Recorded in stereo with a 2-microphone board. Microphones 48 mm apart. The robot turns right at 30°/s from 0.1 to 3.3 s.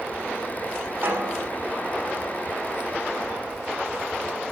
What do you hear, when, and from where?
1.0 s a snare drum: 65° right (ahead or behind), 6 m; by 1.5 s 80° right, 6 m